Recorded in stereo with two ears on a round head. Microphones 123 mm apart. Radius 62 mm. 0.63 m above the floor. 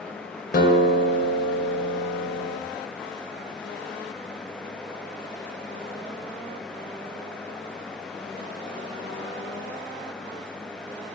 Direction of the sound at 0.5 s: 70° left (ahead or behind).